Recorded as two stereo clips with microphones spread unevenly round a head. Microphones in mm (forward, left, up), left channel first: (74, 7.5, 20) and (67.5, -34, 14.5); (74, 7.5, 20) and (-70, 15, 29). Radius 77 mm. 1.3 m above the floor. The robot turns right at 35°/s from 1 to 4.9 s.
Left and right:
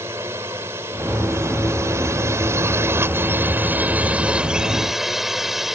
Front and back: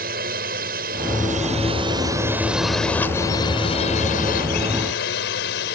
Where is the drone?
150° right; by 5.8 s 15° right.